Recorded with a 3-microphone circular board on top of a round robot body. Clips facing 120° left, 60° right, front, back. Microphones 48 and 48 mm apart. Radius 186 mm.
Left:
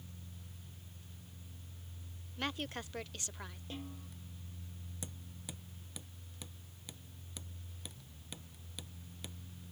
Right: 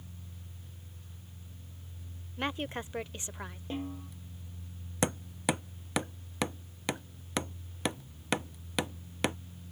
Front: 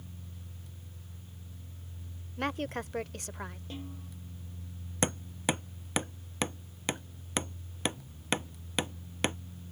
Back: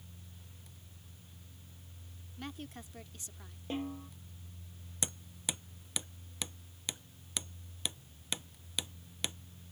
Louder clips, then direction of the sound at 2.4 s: Right 5 dB, front 12 dB; 5° left.